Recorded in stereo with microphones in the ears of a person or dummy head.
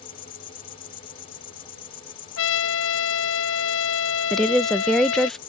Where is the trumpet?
65° left (ahead or behind).